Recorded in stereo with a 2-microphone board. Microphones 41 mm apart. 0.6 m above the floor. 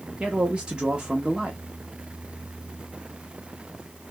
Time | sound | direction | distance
0.2 | a man speaking | 25° right (ahead or behind) | 1.0 m